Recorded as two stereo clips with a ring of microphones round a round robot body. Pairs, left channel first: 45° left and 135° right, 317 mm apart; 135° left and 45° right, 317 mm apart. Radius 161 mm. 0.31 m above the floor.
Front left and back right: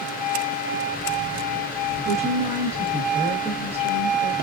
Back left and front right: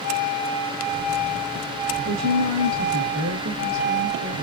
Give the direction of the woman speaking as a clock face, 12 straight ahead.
2 o'clock.